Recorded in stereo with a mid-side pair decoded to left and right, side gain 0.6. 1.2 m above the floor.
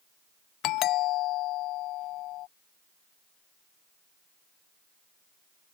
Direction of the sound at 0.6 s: 65° left.